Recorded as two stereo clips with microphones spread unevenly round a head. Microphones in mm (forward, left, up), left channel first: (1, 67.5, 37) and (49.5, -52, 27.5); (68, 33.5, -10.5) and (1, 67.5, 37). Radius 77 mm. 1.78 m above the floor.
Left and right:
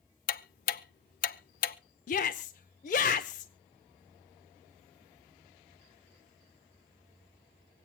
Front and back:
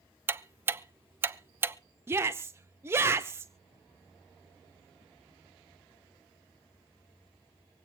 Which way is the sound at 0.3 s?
135° left.